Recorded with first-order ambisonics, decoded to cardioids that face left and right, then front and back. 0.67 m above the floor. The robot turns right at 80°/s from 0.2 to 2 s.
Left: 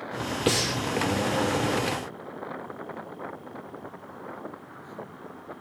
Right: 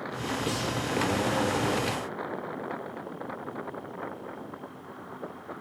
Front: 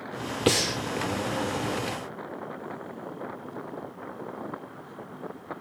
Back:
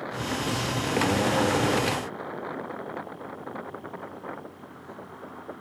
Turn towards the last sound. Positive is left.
turn(degrees=155)